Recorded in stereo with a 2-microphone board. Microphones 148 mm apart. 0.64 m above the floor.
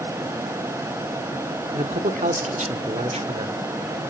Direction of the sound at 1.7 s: 55° right (ahead or behind).